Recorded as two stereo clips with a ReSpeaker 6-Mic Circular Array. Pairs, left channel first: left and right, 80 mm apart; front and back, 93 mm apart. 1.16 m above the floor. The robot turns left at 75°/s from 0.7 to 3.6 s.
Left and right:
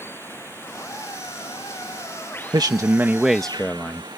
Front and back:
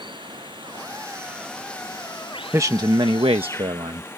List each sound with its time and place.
0.0 s running water: 150° left; by 4.2 s 65° right
2.5 s a man speaking: 115° right; by 4.2 s 160° left